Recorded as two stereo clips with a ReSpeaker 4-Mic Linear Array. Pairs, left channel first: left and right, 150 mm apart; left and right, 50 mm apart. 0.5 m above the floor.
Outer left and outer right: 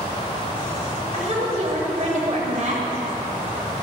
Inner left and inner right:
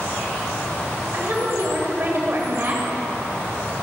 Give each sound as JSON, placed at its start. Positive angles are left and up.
{"t": 1.1, "sound": "a woman speaking", "side_deg": -50, "distance_m": 2.5}